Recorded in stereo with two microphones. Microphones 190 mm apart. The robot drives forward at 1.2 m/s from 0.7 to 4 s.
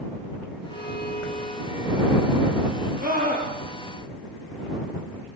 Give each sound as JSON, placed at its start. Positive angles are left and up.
{"t": 0.7, "sound": "a violin", "side_deg": 75, "distance_m": 1.5}
{"t": 3.0, "sound": "a scream", "side_deg": -45, "distance_m": 10.0}